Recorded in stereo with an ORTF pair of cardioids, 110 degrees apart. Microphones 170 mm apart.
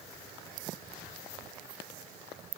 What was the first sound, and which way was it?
Only background noise.